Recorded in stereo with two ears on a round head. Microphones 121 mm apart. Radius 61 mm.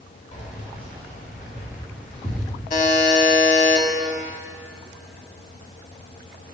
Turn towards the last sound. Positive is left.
turn(degrees=55)  # may be behind; listen again after turning